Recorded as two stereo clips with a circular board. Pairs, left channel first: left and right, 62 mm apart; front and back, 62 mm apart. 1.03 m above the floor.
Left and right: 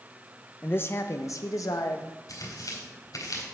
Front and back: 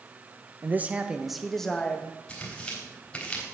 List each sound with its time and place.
0.6 s a man speaking: 140° left, 0.8 m; by 2.1 s 70° left, 1.4 m
2.3 s tearing paper: 70° left, 3.5 m